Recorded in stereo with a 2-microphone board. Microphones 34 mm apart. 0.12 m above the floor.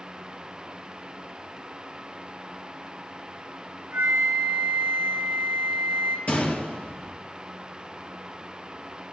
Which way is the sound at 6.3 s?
50° left (ahead or behind).